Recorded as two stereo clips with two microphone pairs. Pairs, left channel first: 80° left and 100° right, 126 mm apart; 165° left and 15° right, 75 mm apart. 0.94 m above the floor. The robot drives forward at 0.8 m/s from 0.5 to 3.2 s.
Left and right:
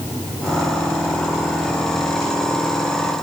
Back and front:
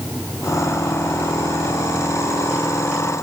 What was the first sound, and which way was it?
Only background noise.